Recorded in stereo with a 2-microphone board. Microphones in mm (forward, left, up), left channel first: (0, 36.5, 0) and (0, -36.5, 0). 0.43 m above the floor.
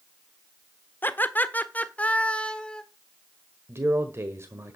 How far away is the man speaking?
About 1.4 m.